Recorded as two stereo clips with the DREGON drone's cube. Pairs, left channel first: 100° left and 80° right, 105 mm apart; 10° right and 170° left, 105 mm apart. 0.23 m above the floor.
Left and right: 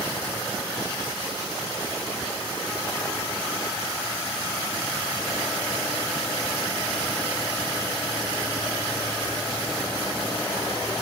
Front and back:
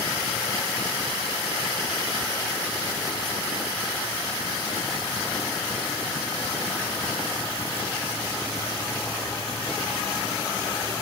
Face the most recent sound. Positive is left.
No sound to turn to.